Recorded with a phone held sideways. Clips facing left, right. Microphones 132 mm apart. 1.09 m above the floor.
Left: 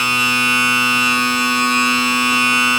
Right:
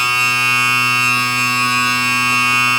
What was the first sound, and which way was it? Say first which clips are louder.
A machine running: left 1 dB; 40° left (ahead or behind).